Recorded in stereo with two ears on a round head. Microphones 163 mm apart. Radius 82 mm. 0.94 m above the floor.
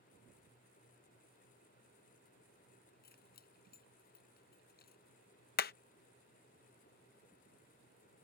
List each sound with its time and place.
3.0 s keys jangling: 60° left (ahead or behind)
5.6 s hammering: 55° left (ahead or behind)